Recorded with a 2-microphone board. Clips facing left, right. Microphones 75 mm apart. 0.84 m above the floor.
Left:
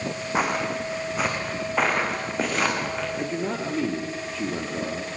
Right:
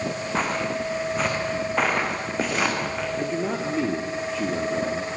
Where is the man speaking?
Centre (ahead or behind), 2 m.